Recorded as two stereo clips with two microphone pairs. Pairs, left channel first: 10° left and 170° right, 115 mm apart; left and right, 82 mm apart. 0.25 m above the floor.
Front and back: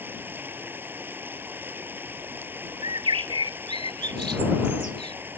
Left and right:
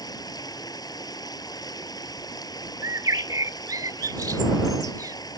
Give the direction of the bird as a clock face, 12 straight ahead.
4 o'clock.